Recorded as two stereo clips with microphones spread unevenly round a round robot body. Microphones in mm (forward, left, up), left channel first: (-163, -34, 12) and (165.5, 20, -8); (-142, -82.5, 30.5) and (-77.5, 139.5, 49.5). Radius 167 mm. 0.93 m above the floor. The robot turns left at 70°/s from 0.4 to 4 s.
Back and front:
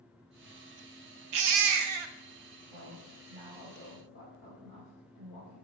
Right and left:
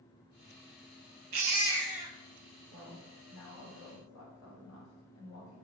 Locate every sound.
1.3 s a baby crying: 50° left, 0.7 m; by 2.1 s 10° right, 0.7 m
2.7 s a woman speaking: 10° right, 3 m; by 5.6 s 100° right, 3 m